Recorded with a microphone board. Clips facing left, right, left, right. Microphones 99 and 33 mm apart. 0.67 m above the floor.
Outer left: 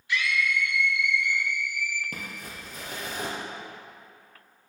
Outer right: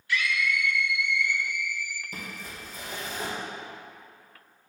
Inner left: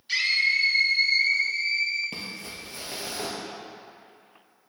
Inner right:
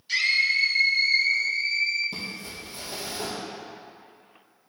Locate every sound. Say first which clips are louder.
0.1 s a scream: outer left 1 dB, inner right 1 dB; 20° left (ahead or behind), 1.6 m; by 2.0 s 50° left (ahead or behind), 1.8 m
2.1 s crumpling: even, inner right 1 dB; 65° left (ahead or behind), 2 m